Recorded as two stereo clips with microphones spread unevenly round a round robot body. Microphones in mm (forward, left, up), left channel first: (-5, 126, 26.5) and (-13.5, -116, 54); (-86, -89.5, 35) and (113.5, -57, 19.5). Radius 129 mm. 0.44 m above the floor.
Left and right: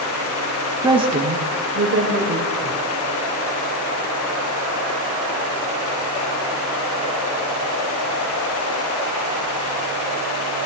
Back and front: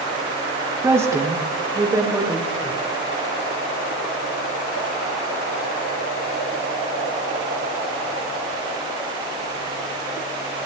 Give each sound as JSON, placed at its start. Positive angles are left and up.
{"t": 0.8, "sound": "a woman speaking", "azimuth_deg": -20, "distance_m": 1.1}